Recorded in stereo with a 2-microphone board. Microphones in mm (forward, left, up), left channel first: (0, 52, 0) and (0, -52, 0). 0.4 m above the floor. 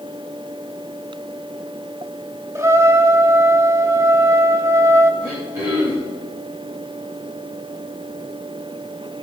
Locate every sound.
2.5 s a trumpet: 30° right (ahead or behind), 0.9 m
5.2 s throat clearing: 30° right (ahead or behind), 5.5 m